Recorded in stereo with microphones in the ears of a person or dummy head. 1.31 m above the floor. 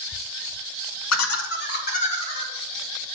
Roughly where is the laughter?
Left.